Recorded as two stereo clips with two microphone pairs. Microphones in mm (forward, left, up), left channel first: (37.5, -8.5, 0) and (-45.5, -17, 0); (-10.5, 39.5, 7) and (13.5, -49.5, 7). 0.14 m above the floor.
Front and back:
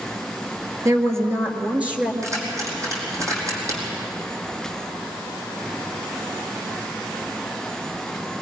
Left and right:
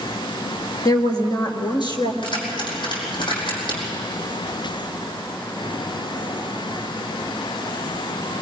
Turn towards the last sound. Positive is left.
turn(degrees=135)